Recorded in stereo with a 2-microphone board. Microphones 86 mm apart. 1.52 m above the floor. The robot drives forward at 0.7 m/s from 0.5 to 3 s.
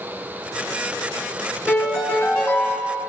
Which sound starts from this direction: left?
A piano, at 1.7 s.